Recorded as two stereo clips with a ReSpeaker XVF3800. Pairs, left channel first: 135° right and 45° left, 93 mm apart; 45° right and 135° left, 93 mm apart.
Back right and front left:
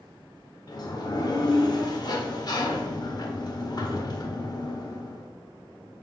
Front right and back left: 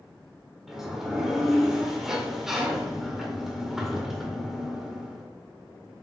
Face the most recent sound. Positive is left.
turn(degrees=-140)